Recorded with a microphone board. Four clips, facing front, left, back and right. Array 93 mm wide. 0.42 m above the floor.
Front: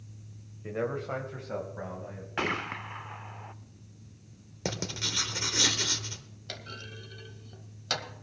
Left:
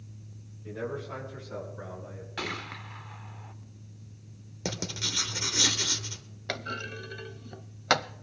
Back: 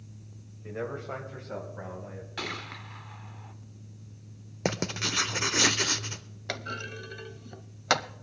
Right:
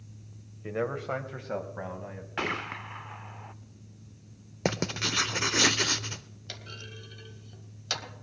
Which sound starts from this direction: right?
A man speaking, at 0.6 s.